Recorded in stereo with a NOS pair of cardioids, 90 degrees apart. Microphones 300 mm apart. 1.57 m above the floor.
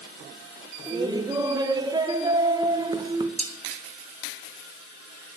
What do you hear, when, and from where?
0.9 s laughter: 15° right, 1.3 m
3.4 s dishes clattering: 25° right, 3 m